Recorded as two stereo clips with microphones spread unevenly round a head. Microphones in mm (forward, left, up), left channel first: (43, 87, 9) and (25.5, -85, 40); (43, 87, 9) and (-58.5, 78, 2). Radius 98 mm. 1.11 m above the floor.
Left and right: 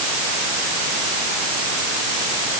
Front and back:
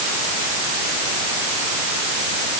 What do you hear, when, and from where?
Only background noise.